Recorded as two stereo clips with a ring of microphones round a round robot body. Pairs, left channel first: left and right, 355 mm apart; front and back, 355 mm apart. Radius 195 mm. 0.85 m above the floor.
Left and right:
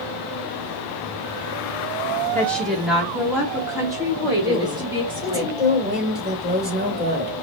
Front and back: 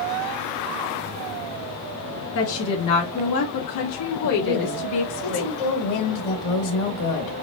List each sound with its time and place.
2.4 s a woman speaking: 10° left, 1.0 m; by 5.4 s 15° right, 2.5 m
4.4 s a woman speaking: 5° right, 2 m